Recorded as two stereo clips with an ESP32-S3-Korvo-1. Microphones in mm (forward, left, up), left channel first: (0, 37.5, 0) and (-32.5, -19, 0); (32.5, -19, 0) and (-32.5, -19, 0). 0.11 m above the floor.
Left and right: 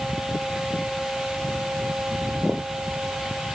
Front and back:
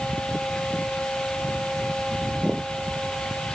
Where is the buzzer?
No buzzer in this recording.